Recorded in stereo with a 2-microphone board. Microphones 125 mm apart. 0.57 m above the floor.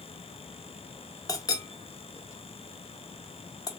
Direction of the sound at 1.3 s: 30° left (ahead or behind).